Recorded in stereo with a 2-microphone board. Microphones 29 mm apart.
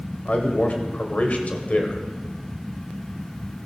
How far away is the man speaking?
About 1.3 m.